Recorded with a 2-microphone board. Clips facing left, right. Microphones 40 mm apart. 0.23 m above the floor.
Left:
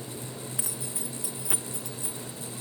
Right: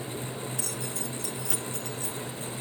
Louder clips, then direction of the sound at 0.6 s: Right 3 dB; 15° left (ahead or behind).